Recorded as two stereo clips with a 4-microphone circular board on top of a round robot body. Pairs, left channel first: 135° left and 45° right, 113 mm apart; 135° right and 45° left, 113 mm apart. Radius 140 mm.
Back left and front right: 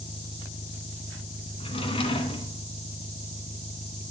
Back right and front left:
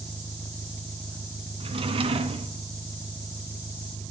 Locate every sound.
0.0 s an engine running: 155° left, 1.8 m
1.6 s a drawer: 90° left, 2.5 m